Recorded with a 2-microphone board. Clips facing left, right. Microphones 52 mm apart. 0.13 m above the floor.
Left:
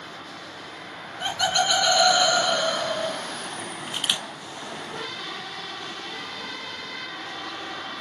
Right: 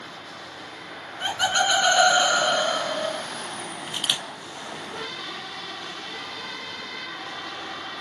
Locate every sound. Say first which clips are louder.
1.2 s laughter: right 1 dB; 20° right (ahead or behind), 1.5 m; by 3.2 s 30° right (ahead or behind), 1.6 m
3.9 s a camera shutter: even; 10° left (ahead or behind), 0.7 m